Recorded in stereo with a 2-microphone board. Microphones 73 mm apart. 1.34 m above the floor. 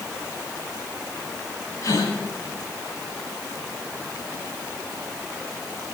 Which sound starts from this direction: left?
A gasp, at 1.8 s.